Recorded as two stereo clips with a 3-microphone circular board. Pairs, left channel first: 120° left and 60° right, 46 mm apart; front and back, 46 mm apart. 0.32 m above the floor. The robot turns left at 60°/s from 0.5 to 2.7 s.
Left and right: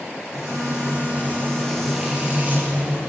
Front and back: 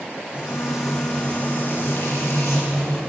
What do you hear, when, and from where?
0.3 s frying: 110° left, 8 m; by 3.0 s 20° right, 8 m